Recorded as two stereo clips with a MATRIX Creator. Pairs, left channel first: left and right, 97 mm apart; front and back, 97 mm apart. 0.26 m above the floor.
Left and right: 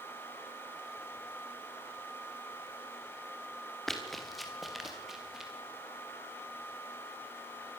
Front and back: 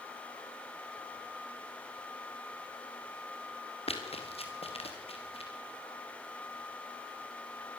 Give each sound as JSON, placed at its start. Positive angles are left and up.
{"t": 3.9, "sound": "running footsteps", "azimuth_deg": 5, "distance_m": 4.0}